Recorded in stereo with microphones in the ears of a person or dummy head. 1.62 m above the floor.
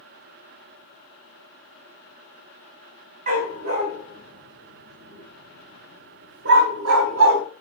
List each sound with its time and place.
3.3 s a dog barking: 45° right (ahead or behind), 2 m; by 7.4 s 65° right (ahead or behind), 3 m